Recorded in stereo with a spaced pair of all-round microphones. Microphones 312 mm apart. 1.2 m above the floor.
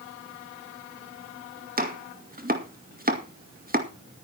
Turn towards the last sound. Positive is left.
turn(degrees=-30)  # may be behind; listen again after turning